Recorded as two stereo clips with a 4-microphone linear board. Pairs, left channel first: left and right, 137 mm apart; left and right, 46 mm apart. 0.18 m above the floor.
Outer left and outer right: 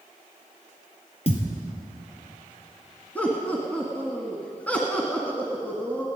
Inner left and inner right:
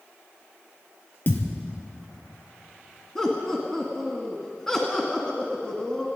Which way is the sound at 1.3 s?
45° left (ahead or behind).